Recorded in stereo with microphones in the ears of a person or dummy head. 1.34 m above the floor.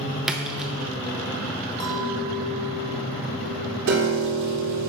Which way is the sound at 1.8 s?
25° left (ahead or behind).